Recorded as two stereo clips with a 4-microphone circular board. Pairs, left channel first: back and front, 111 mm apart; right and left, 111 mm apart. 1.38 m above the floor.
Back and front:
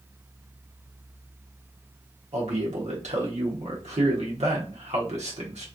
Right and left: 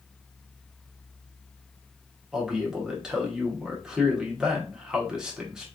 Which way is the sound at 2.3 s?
5° left.